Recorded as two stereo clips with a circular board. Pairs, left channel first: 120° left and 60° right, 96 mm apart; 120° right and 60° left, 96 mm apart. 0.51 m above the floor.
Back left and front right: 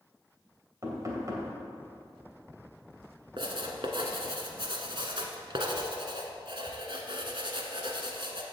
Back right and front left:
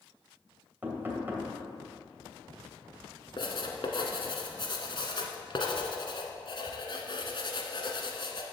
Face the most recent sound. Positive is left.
turn(degrees=-90)